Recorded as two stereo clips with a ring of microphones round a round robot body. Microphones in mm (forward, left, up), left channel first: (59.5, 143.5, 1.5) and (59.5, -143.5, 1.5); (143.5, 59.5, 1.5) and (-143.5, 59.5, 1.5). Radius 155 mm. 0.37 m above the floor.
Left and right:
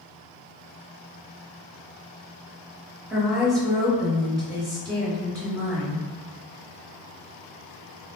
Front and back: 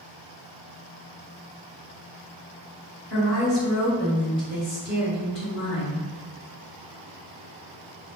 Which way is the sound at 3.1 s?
Straight ahead.